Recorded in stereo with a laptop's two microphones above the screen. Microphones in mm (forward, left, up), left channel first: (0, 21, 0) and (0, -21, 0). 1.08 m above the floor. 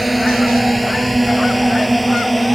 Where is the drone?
Centre (ahead or behind).